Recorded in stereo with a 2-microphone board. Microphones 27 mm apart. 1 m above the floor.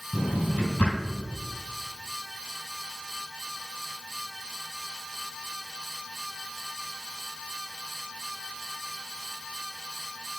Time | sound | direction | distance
0.1 | a drawer | 60° left (ahead or behind) | 3 m